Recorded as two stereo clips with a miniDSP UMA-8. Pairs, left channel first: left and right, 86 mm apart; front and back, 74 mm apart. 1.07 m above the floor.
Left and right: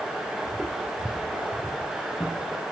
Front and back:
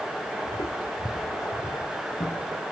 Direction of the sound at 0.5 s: Straight ahead.